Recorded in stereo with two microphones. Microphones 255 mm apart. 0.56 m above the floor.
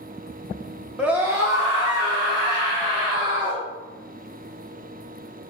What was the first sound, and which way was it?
A scream, 5° right (ahead or behind).